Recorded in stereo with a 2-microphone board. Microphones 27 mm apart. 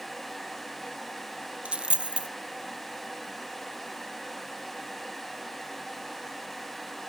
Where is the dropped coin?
45° right (ahead or behind), 0.6 m.